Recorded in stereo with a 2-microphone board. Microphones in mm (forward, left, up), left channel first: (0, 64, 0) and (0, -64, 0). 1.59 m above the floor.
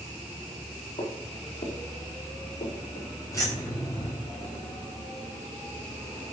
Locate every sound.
1.0 s footsteps: 50° left (ahead or behind), 5 m; by 3.1 s 55° left (ahead or behind), 4 m
3.3 s keys jangling: 25° left (ahead or behind), 6 m